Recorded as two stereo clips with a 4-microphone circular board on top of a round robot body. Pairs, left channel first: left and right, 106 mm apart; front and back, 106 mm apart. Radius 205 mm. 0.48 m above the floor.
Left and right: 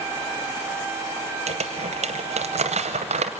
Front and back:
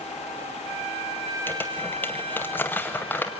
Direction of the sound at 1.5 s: 75° right.